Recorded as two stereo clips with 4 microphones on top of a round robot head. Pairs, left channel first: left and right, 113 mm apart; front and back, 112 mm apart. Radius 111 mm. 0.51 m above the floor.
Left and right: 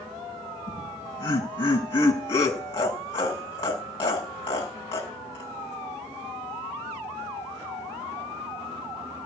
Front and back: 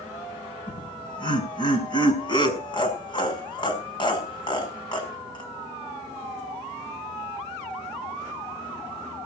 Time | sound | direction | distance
0.7 | laughter | 45° left | 5.5 m